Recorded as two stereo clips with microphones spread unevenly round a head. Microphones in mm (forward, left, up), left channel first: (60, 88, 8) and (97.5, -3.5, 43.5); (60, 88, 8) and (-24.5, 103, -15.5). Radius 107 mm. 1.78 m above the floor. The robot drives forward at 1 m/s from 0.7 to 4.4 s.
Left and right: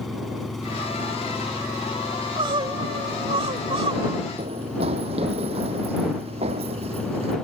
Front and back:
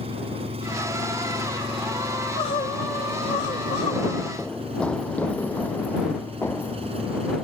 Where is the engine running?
155° right; by 7.5 s 160° right.